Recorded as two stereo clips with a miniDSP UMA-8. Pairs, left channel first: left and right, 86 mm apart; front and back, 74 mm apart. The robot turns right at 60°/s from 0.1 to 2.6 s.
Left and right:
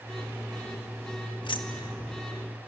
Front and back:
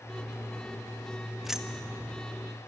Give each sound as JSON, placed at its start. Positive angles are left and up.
{"t": 1.4, "sound": "keys jangling", "azimuth_deg": 90, "distance_m": 1.5}